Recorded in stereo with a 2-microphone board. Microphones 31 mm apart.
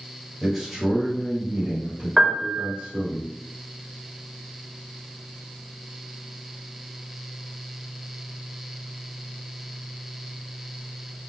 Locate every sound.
0.4 s a man speaking: 5° right (ahead or behind), 1.6 m; by 3.2 s 40° right (ahead or behind), 1.9 m
2.2 s a piano: 15° right (ahead or behind), 0.8 m